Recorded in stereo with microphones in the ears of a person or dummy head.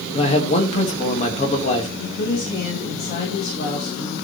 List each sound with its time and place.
0.1 s a man speaking: 35° left (ahead or behind), 1.9 m
2.0 s a woman speaking: 45° left (ahead or behind), 2.5 m